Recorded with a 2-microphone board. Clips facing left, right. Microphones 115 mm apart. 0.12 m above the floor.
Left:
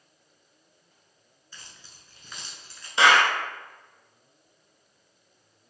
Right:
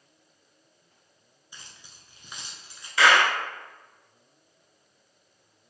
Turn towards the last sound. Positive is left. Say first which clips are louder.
# left 1 dB
turn(degrees=25)  # may be behind; listen again after turning